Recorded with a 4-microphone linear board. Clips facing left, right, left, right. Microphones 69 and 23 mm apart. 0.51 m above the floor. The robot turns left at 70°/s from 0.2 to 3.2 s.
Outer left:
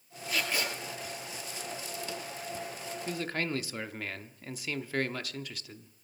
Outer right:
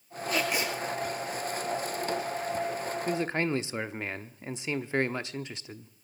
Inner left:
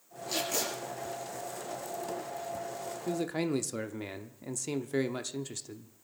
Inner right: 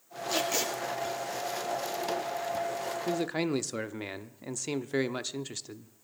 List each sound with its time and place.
0.3 s tape being pulled: centre (ahead or behind), 7.5 m; by 0.7 s 30° right (ahead or behind), 7.5 m
3.1 s a man speaking: 25° right (ahead or behind), 0.7 m; by 5.9 s 20° right (ahead or behind), 0.7 m